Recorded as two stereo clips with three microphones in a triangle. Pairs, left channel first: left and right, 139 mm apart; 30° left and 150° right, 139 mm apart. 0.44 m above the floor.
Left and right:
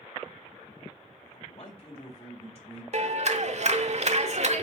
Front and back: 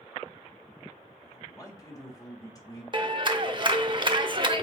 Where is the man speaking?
85° left, 2.0 m.